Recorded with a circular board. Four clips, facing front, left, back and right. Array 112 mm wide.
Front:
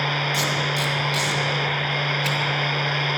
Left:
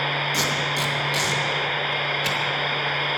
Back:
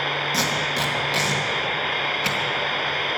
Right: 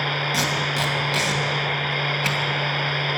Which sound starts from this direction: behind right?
Tape being pulled, at 0.3 s.